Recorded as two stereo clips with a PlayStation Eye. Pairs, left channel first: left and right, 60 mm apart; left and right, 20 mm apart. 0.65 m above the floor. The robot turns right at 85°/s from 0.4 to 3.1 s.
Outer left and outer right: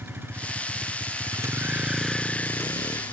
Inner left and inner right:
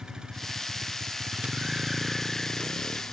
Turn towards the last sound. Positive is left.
turn(degrees=90)